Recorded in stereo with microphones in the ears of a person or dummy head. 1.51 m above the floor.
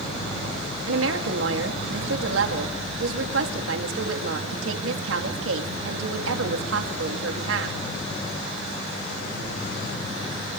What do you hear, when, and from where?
0.8 s a woman speaking: 85° right, 3 m